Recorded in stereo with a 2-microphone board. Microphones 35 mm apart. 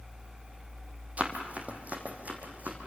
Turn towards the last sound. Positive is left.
turn(degrees=-45)  # may be behind; listen again after turning